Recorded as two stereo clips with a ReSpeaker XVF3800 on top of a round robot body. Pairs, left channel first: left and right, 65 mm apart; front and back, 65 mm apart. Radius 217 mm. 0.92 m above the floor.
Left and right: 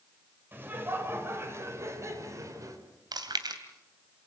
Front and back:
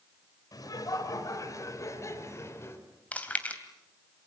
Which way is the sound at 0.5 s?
30° right.